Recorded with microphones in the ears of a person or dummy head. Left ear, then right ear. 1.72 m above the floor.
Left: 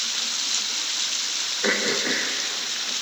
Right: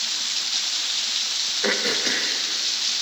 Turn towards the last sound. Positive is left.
turn(degrees=-10)  # may be behind; listen again after turning